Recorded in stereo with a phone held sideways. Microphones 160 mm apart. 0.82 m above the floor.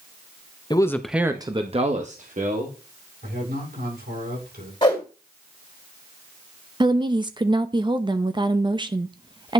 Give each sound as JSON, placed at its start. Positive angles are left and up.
{"t": 0.7, "sound": "a man speaking", "side_deg": 25, "distance_m": 0.8}
{"t": 3.2, "sound": "a man speaking", "side_deg": -80, "distance_m": 7.0}
{"t": 4.8, "sound": "a whoosh", "side_deg": 30, "distance_m": 2.5}
{"t": 6.8, "sound": "a woman speaking", "side_deg": -30, "distance_m": 0.7}